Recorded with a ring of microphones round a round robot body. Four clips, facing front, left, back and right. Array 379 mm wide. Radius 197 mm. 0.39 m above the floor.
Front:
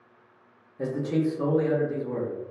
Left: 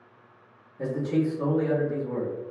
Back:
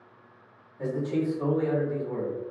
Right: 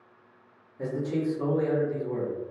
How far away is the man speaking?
About 1.0 m.